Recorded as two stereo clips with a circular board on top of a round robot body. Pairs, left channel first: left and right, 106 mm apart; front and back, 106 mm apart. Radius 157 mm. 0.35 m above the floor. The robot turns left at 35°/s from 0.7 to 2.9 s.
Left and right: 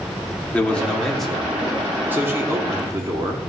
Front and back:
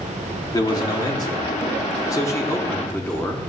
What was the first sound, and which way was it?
A man speaking, 20° left.